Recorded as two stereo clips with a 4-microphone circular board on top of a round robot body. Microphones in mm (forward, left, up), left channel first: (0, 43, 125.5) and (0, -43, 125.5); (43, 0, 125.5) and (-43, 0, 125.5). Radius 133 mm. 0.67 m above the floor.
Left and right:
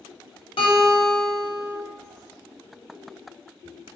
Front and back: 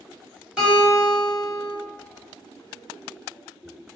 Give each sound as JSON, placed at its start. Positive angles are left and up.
{"t": 0.6, "sound": "a guitar", "azimuth_deg": 105, "distance_m": 1.2}